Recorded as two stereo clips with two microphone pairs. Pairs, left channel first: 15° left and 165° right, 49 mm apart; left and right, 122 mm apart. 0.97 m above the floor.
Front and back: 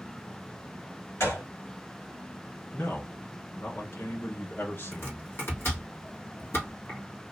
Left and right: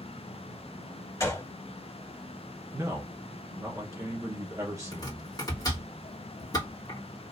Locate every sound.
1.2 s a gunshot: 30° left, 2 m
2.7 s a man speaking: 25° right, 1.4 m
4.9 s chopping: 35° left, 1.8 m